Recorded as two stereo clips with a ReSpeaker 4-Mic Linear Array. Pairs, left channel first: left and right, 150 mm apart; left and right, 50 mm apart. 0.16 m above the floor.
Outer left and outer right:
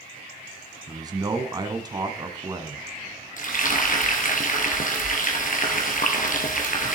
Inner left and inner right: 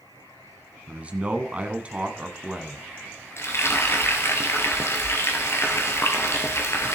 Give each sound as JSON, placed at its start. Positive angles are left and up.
{"t": 0.9, "sound": "a man speaking", "side_deg": -25, "distance_m": 1.1}
{"t": 3.4, "sound": "frying", "side_deg": 65, "distance_m": 1.8}